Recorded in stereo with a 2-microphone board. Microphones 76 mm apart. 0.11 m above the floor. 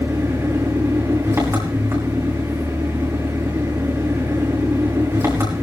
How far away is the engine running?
About 5.5 m.